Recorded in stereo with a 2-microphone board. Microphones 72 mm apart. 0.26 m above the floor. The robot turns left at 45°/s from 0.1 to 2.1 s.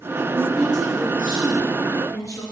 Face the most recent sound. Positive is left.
turn(degrees=130)